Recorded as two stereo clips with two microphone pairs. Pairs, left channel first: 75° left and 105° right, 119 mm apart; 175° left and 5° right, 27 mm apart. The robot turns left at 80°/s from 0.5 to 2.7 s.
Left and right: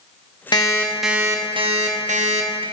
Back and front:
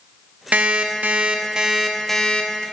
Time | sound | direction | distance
0.5 | an alarm clock | 25° left | 0.7 m